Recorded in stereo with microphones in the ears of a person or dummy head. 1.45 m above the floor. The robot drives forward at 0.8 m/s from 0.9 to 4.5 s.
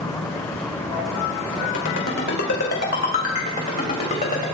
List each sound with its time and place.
1.7 s a ringtone: 65° left (ahead or behind), 3 m; by 4.4 s 40° left (ahead or behind), 4.5 m